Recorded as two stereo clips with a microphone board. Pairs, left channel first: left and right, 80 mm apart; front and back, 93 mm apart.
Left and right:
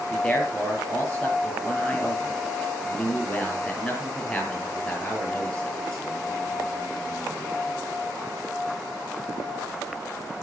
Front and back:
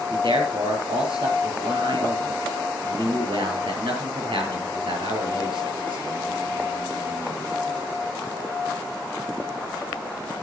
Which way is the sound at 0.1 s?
165° left.